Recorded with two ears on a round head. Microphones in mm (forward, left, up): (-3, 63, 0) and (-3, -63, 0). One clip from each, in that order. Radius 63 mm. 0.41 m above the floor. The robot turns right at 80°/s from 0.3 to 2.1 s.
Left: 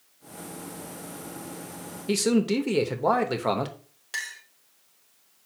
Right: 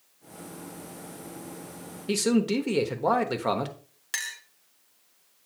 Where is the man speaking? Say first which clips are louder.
Left 1 dB; centre (ahead or behind), 0.8 m.